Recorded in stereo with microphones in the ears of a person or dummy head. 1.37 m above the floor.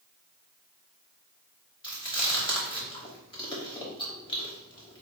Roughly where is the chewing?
Left.